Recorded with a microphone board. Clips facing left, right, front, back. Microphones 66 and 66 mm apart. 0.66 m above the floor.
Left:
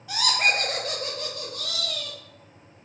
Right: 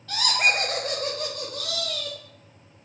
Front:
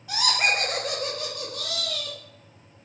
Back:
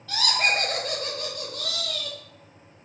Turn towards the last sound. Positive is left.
turn(degrees=-80)